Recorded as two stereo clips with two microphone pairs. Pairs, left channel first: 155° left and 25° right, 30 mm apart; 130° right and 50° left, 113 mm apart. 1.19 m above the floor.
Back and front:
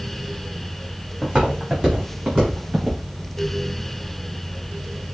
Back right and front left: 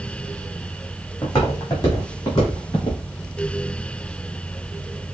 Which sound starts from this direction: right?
Footsteps, at 1.2 s.